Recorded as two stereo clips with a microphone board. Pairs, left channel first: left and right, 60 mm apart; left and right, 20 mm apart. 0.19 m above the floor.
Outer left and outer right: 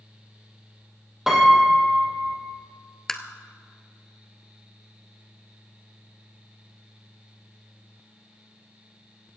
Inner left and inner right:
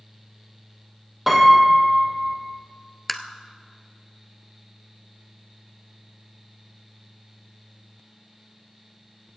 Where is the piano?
5° right (ahead or behind), 3 m.